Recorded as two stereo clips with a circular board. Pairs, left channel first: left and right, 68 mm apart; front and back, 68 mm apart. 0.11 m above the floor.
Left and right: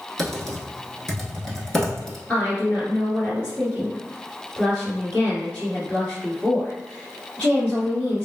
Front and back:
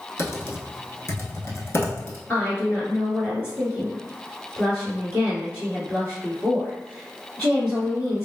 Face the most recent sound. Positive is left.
turn(degrees=35)